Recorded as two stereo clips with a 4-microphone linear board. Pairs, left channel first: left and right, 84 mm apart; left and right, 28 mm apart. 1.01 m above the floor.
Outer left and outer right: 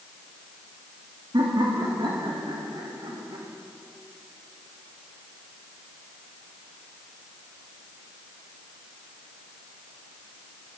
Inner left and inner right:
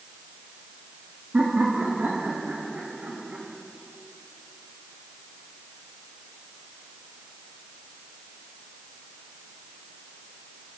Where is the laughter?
75° right (ahead or behind), 1.7 m; by 3.5 s 70° right (ahead or behind), 3 m.